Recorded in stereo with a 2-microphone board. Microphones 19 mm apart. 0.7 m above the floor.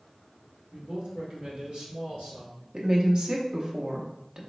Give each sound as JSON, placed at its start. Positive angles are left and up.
{"t": 0.7, "sound": "a man speaking", "side_deg": -50, "distance_m": 1.2}
{"t": 2.7, "sound": "a woman speaking", "side_deg": -55, "distance_m": 0.8}